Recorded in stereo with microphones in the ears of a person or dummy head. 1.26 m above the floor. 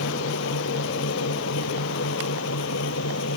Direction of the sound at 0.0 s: 80° left.